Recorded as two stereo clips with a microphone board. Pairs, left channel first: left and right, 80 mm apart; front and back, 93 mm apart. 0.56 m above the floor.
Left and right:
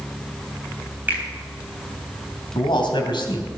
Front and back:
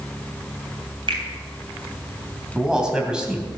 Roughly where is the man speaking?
Left.